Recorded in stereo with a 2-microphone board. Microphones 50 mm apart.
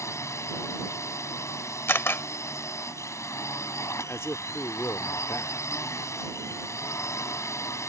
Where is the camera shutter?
50° left (ahead or behind).